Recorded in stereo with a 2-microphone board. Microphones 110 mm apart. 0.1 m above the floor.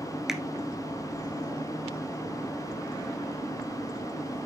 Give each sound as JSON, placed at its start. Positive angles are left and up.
{"t": 0.3, "sound": "a finger snap", "side_deg": -5, "distance_m": 1.1}